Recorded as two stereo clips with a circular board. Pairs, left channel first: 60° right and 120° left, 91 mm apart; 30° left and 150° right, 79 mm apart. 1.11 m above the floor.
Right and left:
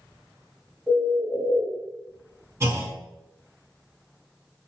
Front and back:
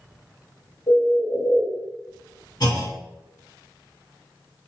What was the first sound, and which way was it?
A bird, 50° left.